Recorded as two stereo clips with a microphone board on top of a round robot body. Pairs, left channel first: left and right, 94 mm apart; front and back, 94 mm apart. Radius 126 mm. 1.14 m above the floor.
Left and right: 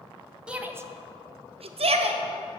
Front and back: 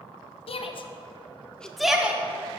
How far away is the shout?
About 1.4 m.